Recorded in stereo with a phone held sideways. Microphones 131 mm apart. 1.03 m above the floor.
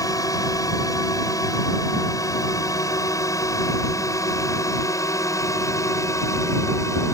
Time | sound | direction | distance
0.0 | a drone | 25° left (ahead or behind) | ?